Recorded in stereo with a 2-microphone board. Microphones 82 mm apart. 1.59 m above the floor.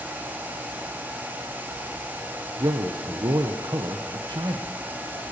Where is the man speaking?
60° right (ahead or behind), 1.2 m.